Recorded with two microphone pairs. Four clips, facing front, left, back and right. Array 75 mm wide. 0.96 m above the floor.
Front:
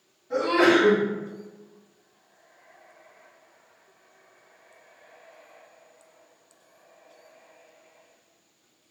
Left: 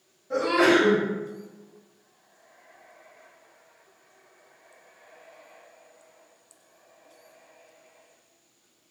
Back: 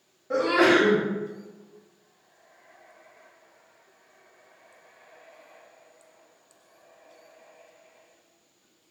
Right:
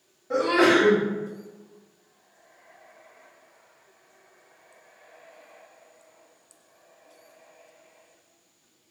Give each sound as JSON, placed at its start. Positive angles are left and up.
{"t": 0.3, "sound": "a sneeze", "azimuth_deg": -145, "distance_m": 1.6}